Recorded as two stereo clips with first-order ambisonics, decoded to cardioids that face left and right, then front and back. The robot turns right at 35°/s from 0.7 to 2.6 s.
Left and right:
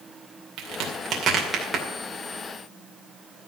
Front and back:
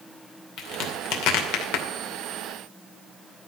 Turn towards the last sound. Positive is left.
turn(degrees=20)